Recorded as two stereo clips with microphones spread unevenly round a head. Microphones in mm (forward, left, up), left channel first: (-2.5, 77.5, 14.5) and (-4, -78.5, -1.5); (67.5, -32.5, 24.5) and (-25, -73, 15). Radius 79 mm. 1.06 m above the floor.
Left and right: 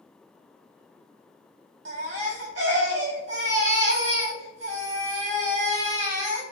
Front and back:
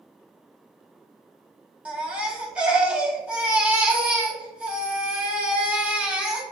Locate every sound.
1.9 s a baby crying: 80° right, 4 m